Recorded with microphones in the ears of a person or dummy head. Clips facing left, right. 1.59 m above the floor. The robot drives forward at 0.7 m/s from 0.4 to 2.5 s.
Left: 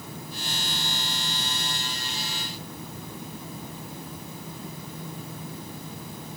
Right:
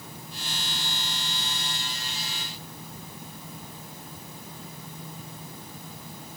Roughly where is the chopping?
No chopping in this recording.